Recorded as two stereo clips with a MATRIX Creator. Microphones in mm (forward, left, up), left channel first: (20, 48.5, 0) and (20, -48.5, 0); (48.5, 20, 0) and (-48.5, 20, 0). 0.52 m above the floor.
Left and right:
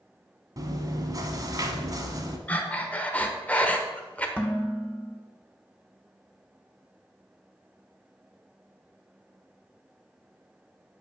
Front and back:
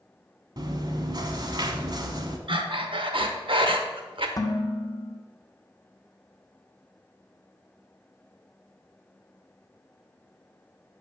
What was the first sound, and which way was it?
Chewing, 140° right.